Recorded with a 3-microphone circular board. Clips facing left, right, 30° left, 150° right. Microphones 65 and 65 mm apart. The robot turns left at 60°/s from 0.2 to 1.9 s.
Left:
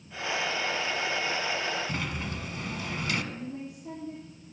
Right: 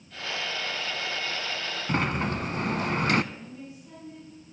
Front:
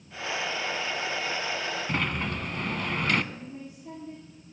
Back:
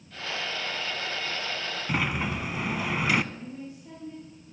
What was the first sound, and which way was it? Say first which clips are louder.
A sliding door: right 7 dB, back 4 dB; 70° right.